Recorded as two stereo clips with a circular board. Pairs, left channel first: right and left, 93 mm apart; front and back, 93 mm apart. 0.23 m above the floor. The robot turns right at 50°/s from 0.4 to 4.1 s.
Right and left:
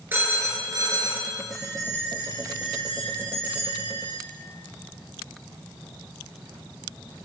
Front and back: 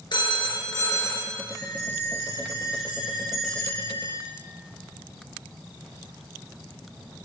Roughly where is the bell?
Behind.